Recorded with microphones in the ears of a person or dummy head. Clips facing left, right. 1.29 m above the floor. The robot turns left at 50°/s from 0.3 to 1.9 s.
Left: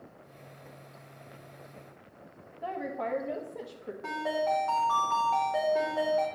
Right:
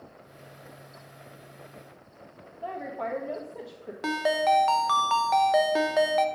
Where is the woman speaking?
Centre (ahead or behind), 1.3 m.